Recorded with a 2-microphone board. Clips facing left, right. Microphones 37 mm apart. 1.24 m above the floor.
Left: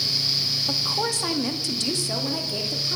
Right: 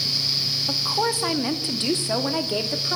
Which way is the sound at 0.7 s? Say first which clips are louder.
Right 4 dB; 10° right (ahead or behind).